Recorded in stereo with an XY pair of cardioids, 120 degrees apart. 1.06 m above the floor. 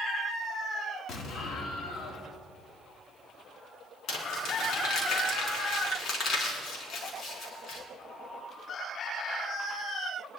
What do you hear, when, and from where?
1.1 s an explosion: 60° left, 1.8 m
4.1 s crumpling: 55° left, 4 m